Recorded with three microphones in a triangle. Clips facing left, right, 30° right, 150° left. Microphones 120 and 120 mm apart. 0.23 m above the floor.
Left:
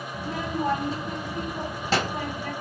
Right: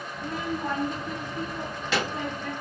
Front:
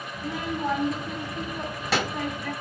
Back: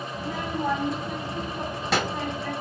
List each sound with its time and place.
0.1 s a child speaking: 60° left, 1.1 m